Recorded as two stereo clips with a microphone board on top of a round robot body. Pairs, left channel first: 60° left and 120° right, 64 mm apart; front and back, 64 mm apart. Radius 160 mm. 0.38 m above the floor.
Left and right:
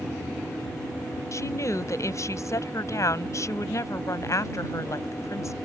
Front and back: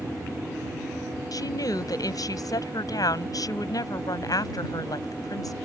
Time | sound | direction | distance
1.3 | a woman speaking | 20° left | ?